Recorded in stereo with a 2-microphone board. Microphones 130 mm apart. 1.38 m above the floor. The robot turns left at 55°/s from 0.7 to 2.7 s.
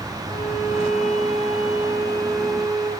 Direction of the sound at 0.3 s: 95° left.